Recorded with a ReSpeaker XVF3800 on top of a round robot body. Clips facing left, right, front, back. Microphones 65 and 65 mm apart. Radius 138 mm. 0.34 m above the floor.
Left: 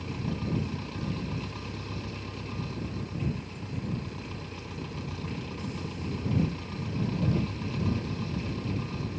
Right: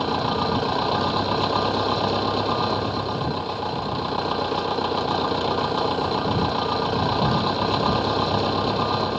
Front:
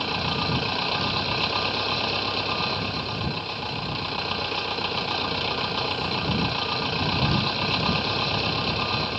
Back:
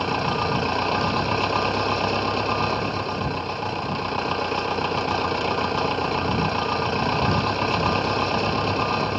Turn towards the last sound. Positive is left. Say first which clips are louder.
# right 12 dB, back 4 dB
turn(degrees=-110)